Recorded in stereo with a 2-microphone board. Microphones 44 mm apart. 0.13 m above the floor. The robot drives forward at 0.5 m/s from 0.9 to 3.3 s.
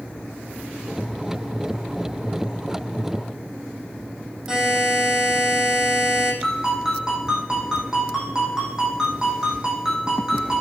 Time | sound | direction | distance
4.5 | a buzzer | 15° right (ahead or behind) | 6 m
6.4 | a ringtone | 15° right (ahead or behind) | 5 m